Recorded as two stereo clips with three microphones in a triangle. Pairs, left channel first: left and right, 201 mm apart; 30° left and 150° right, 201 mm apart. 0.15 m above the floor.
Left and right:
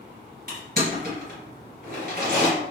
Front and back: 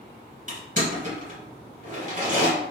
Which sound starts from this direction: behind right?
Crushing, at 0.5 s.